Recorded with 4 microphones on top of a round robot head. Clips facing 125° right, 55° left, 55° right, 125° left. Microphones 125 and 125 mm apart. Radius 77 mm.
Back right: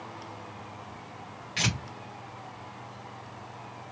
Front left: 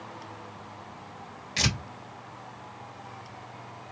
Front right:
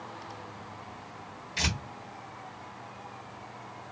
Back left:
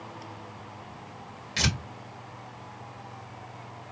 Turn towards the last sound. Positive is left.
turn(degrees=110)